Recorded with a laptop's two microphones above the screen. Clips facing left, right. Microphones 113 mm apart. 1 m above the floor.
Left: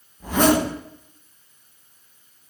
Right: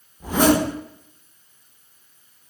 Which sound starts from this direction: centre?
A zipper, at 0.2 s.